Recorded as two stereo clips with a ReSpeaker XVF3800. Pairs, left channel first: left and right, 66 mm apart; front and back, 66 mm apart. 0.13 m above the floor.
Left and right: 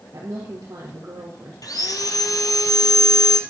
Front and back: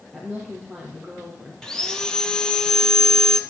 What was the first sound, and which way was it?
A woman speaking, 80° right.